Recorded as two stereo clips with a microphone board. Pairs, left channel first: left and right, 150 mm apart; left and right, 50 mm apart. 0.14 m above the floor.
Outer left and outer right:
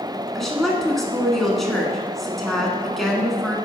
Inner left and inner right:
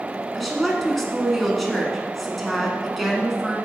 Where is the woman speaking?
Centre (ahead or behind), 1.1 m.